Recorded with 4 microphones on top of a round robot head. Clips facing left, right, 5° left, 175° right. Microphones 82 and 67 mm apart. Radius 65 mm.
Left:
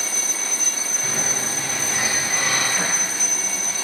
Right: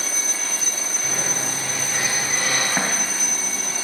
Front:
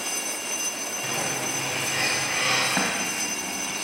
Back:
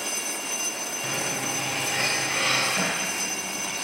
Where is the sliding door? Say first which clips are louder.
Even, front 1 dB; 90° left, 5.5 m.